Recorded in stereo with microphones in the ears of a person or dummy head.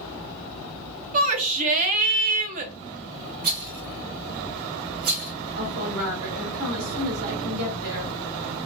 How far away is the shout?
About 0.6 m.